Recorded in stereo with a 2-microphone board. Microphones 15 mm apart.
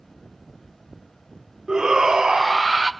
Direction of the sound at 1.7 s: 70° right (ahead or behind).